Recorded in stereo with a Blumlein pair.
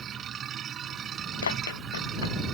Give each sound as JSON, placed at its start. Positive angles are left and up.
{"t": 0.0, "sound": "a machine running", "azimuth_deg": -25}
{"t": 1.4, "sound": "running footsteps", "azimuth_deg": 65}